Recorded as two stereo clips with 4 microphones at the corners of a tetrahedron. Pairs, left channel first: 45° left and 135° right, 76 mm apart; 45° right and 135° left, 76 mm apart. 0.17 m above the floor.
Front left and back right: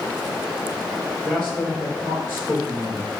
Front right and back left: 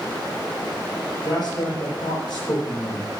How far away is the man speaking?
About 3.5 m.